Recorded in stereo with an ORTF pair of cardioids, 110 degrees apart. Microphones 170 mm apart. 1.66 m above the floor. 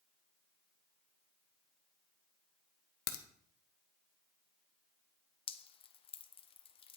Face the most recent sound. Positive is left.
turn(degrees=35)